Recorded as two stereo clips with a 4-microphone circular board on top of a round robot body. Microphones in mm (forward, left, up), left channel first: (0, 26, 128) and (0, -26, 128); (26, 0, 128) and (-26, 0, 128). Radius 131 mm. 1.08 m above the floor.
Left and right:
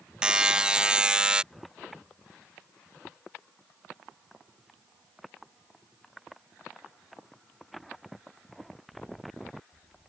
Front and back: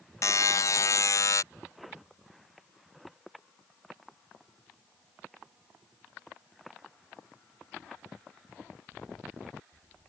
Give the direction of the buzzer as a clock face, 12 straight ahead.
12 o'clock.